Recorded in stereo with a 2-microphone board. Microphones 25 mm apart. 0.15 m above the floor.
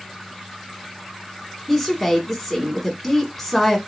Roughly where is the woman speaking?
Centre.